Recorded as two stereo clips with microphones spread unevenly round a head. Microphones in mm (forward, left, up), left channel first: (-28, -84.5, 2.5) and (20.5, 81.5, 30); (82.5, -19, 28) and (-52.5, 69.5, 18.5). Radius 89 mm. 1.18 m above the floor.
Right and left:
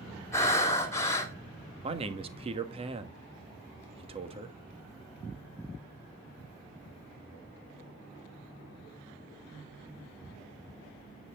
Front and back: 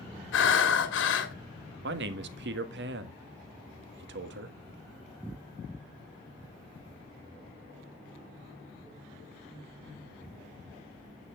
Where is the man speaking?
135° left, 1.5 m.